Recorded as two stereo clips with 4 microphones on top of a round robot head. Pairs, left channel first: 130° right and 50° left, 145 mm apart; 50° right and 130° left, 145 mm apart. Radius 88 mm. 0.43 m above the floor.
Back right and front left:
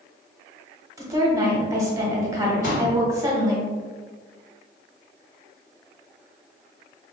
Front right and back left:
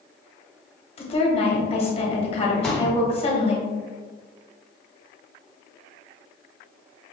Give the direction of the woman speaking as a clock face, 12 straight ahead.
12 o'clock.